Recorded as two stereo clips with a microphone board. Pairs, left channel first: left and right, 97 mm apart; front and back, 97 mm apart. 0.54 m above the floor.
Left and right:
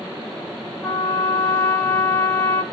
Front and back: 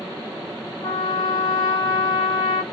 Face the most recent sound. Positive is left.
turn(degrees=25)